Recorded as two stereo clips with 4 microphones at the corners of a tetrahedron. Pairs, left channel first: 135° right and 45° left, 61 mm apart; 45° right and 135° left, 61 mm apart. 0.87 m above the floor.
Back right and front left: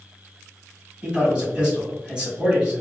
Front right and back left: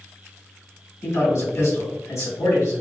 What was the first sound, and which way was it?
A man speaking, 25° right.